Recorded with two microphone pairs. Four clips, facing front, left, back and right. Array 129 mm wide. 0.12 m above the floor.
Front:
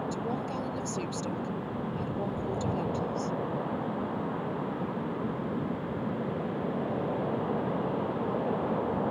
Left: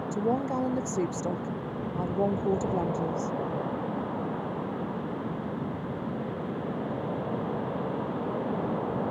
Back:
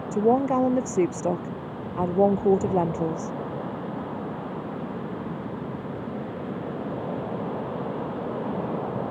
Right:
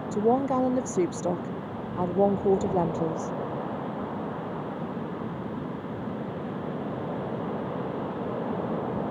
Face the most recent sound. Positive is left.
turn(degrees=-155)